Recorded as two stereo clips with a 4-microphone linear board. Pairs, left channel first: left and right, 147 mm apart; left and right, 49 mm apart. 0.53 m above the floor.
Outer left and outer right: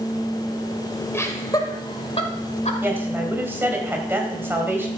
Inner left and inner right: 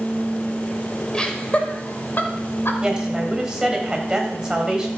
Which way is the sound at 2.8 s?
15° right (ahead or behind).